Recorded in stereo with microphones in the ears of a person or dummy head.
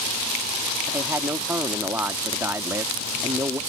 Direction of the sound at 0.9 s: 20° right (ahead or behind).